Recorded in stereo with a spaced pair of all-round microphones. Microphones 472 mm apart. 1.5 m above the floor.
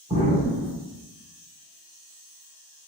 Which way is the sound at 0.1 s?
10° right (ahead or behind).